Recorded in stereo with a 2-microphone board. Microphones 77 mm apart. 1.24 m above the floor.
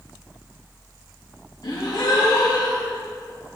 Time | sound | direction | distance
1.6 | a gasp | 65° left (ahead or behind) | 2.5 m